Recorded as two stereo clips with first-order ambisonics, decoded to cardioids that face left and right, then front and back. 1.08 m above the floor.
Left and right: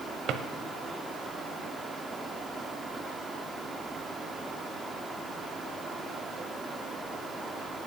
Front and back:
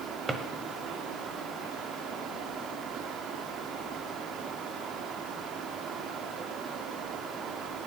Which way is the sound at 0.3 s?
110° right.